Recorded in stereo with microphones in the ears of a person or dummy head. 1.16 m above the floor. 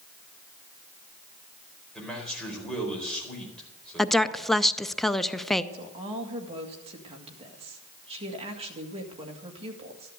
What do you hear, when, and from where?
1.9 s a man speaking: 5° left (ahead or behind), 4.5 m
4.0 s a woman speaking: centre (ahead or behind), 0.6 m
5.7 s a woman speaking: 25° right (ahead or behind), 2 m